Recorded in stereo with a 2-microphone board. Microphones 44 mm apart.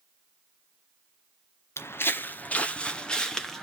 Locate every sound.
1.8 s footsteps: 65° left (ahead or behind), 0.9 m; by 3.6 s 5° left (ahead or behind), 1.9 m